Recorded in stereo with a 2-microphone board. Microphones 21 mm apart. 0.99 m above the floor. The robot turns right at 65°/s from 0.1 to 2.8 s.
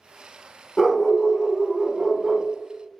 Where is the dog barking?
165° left, 0.7 m; by 2.5 s 85° right, 0.7 m.